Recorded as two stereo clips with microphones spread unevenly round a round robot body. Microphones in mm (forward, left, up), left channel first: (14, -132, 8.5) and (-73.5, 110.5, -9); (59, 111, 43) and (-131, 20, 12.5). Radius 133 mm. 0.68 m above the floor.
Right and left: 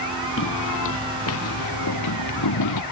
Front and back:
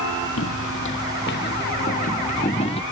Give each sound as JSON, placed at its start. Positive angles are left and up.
{"t": 0.4, "sound": "footsteps", "azimuth_deg": -20}